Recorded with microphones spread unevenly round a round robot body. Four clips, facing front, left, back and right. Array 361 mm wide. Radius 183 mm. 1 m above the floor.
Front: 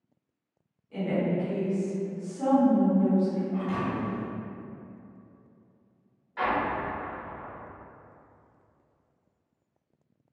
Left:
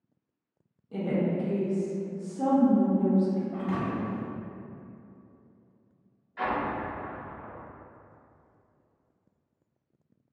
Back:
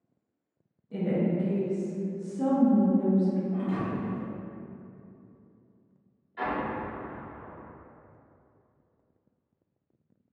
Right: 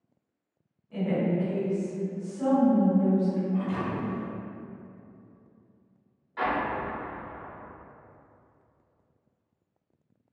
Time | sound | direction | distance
0.9 | a woman speaking | 145° left | 0.6 m
3.5 | a thud | 120° left | 0.9 m
6.4 | an explosion | 45° right | 1.8 m